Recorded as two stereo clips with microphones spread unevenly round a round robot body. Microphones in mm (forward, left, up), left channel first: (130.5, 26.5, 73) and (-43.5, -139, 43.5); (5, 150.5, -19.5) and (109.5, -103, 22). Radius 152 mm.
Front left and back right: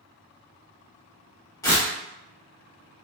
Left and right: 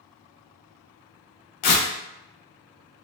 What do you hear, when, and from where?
1.6 s tearing paper: 125° left, 0.6 m